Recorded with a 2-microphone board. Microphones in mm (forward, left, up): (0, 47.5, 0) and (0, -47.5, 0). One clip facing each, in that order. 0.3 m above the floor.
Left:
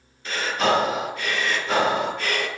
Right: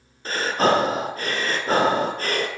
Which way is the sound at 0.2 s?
40° right (ahead or behind).